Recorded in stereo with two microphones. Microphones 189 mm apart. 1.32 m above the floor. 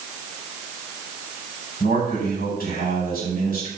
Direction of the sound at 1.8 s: 50° left (ahead or behind).